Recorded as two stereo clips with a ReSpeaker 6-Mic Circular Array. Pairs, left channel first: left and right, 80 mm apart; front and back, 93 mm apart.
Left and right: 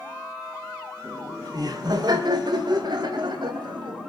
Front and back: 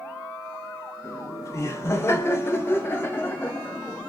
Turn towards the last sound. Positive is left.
turn(degrees=-70)